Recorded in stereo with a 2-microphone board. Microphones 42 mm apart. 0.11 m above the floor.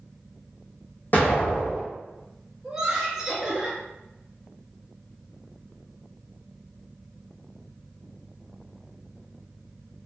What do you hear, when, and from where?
1.1 s an explosion: 45° left (ahead or behind), 1.0 m
2.6 s laughter: 20° right (ahead or behind), 1.5 m